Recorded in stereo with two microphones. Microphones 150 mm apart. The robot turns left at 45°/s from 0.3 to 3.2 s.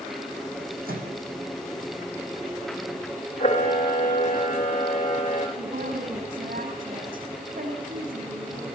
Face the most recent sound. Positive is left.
turn(degrees=-70)  # may be behind; listen again after turning